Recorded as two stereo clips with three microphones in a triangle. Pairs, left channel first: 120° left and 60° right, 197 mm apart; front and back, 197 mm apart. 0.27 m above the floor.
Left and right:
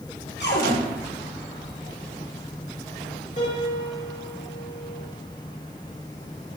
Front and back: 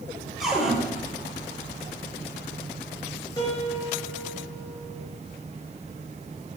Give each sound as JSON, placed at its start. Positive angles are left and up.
{"t": 0.4, "sound": "a cupboard door", "azimuth_deg": 90, "distance_m": 3.5}
{"t": 3.4, "sound": "a piano", "azimuth_deg": 70, "distance_m": 4.5}